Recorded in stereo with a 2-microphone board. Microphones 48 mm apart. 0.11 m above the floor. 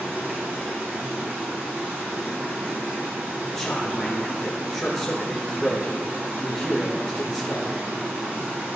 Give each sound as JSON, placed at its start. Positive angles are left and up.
{"t": 0.0, "sound": "running water", "side_deg": -40, "distance_m": 2.0}
{"t": 3.5, "sound": "a man speaking", "side_deg": 10, "distance_m": 2.0}